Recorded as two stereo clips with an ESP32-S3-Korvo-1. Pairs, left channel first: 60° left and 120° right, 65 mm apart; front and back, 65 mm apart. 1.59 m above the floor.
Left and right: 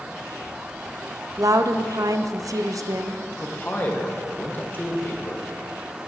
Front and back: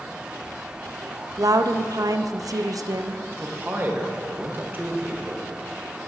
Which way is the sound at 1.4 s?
150° right.